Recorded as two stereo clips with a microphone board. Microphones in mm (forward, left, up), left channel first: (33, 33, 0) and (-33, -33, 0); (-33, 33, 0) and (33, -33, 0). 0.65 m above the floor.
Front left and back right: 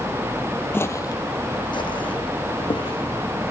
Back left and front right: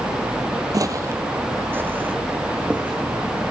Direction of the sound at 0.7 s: 15° right.